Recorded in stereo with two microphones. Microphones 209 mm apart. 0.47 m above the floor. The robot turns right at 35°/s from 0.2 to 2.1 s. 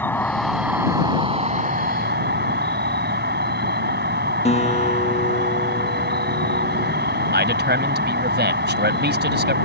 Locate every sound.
0.0 s an insect: 170° left; by 9.7 s 125° right
4.5 s a guitar: 30° left (ahead or behind)
7.3 s a man speaking: 55° right (ahead or behind)